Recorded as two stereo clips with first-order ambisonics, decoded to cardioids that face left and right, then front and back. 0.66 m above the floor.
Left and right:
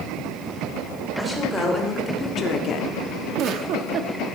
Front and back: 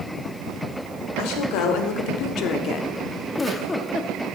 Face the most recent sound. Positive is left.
turn(degrees=-75)